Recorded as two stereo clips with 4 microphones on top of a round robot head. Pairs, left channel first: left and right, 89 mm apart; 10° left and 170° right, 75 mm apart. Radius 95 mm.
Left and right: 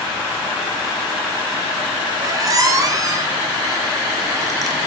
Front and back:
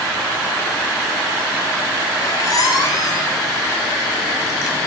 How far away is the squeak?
About 0.6 m.